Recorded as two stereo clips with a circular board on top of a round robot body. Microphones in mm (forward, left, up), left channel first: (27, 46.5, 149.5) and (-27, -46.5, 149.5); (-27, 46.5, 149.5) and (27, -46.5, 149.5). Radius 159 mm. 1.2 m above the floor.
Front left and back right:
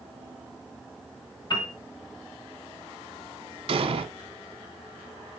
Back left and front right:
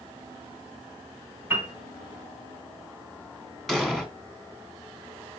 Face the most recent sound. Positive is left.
turn(degrees=-150)